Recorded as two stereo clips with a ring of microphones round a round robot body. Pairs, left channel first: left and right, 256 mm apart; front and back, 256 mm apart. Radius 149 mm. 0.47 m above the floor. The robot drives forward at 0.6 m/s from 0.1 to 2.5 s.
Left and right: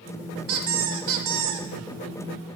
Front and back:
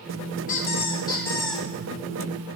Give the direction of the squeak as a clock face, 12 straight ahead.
2 o'clock.